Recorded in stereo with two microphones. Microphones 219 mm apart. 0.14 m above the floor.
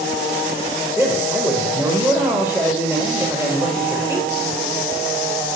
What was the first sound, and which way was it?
A man speaking, 10° right (ahead or behind).